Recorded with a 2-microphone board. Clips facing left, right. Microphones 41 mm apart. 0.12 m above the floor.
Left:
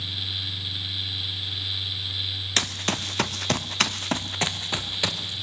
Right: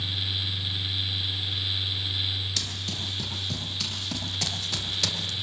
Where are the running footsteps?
60° left (ahead or behind), 1.4 m; by 5.3 s 25° left (ahead or behind), 2.0 m.